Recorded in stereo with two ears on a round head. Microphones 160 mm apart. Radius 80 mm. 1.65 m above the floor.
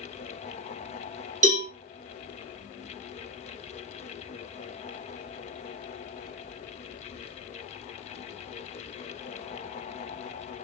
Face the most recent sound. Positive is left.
turn(degrees=-40)  # may be behind; listen again after turning